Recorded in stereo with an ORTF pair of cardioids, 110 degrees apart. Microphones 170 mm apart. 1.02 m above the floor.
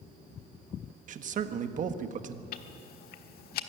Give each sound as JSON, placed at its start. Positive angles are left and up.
{"t": 1.1, "sound": "a man speaking", "azimuth_deg": -50, "distance_m": 1.4}
{"t": 2.5, "sound": "ticking", "azimuth_deg": 70, "distance_m": 1.2}